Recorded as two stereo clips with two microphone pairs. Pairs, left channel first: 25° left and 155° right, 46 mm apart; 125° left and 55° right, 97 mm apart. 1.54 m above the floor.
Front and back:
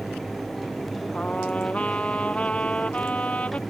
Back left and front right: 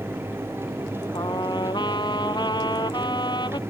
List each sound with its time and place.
1.1 s a trumpet: 90° left